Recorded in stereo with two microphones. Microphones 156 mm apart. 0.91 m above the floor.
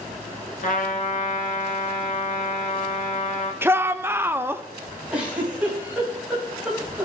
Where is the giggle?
10° right (ahead or behind), 4 m.